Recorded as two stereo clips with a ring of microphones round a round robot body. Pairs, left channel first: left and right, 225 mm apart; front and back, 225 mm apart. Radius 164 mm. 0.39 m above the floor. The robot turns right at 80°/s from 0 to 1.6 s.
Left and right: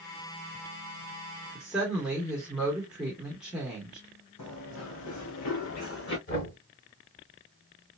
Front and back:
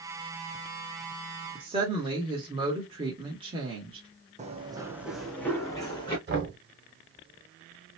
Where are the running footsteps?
120° left, 1.1 m; by 6.2 s 70° left, 1.8 m.